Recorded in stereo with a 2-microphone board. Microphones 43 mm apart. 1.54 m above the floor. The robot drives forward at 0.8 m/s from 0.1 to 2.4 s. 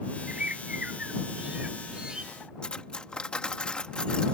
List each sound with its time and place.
0.3 s a bird: 35° right (ahead or behind); by 2.3 s 20° right (ahead or behind)
2.6 s cutlery clinking: 25° left (ahead or behind)